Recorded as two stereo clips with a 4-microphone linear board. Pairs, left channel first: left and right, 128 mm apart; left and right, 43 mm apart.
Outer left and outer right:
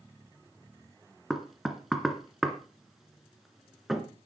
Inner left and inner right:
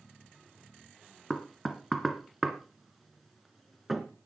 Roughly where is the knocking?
Centre.